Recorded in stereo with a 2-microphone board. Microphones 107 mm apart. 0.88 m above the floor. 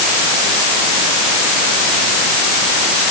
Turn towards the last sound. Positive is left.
No sound to turn to.